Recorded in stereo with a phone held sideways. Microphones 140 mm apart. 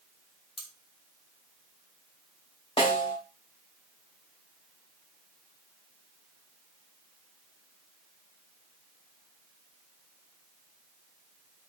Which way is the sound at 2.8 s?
40° left (ahead or behind).